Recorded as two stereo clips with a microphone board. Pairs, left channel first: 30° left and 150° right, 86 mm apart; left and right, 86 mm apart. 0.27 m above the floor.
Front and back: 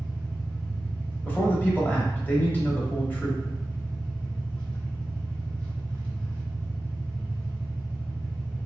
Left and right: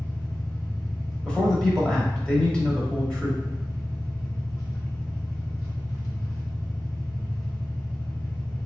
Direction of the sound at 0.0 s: 100° left.